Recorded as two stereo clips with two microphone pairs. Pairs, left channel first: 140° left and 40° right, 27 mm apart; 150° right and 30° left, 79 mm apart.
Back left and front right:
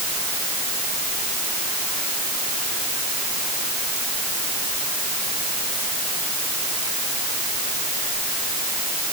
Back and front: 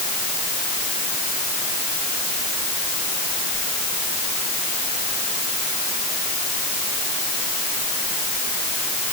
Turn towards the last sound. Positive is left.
No sound to turn to.